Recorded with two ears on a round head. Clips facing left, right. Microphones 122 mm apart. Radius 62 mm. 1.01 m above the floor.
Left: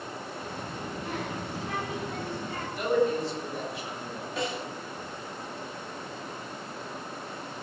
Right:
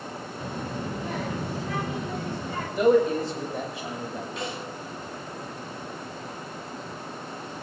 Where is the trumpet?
I don't hear a trumpet.